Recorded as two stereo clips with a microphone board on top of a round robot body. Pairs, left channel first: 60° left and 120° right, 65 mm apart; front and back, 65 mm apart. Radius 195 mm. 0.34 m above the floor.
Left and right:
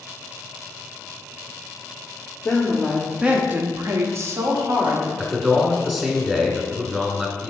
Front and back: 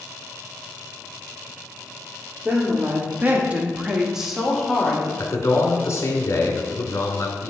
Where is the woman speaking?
135° left, 1.5 m; by 5.1 s 90° right, 2.5 m.